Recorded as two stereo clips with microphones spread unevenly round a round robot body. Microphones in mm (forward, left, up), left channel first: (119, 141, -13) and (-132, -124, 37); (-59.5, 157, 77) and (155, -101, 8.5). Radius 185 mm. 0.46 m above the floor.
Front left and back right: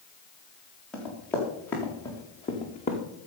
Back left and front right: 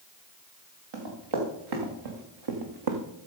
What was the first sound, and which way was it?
Running footsteps, 40° right.